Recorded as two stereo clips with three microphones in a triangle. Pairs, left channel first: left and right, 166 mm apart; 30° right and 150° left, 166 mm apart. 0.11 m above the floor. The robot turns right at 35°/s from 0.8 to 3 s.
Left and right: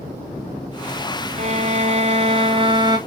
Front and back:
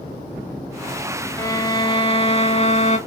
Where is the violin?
95° right, 0.6 m; by 3.0 s 35° right, 0.6 m.